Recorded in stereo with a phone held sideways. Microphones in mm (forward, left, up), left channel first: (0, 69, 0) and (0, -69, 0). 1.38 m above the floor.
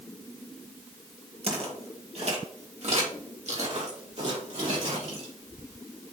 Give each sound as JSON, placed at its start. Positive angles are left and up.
{"t": 1.4, "sound": "footsteps", "side_deg": -50, "distance_m": 2.0}